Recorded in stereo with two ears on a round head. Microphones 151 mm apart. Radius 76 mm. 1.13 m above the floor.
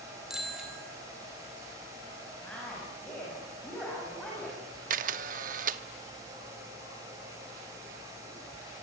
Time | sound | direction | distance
0.3 | a bicycle bell | 5° right (ahead or behind) | 6 m
2.4 | a woman speaking | 5° left (ahead or behind) | 8 m
4.9 | a camera shutter | 50° right (ahead or behind) | 0.9 m